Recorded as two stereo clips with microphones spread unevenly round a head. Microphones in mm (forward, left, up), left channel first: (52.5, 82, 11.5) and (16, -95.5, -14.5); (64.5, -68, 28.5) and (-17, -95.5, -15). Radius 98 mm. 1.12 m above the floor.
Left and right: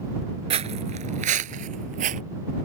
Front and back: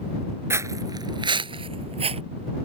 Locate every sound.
0.5 s footsteps: 75° right; by 2.2 s 150° right